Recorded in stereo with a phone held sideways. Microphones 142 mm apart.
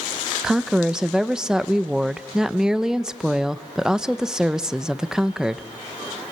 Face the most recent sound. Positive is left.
turn(degrees=-5)  # may be behind; listen again after turning